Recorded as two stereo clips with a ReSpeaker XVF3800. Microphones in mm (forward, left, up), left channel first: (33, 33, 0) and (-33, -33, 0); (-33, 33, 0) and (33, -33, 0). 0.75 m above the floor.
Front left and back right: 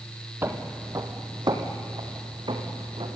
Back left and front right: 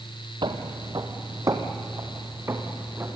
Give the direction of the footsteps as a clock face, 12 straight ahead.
2 o'clock.